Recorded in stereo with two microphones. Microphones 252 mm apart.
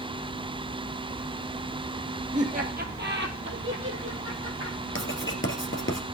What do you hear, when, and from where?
2.3 s laughter: 30° right (ahead or behind), 2.5 m; by 4.8 s 65° right (ahead or behind), 3.5 m
5.0 s writing: 50° left (ahead or behind), 1.8 m